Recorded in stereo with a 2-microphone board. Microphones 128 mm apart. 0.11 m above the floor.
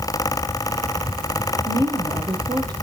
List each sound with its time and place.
1.6 s a woman speaking: 35° right (ahead or behind), 3.5 m